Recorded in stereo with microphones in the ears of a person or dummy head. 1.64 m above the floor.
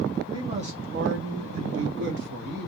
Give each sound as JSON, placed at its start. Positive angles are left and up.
{"t": 0.3, "sound": "a man speaking", "side_deg": -20, "distance_m": 0.8}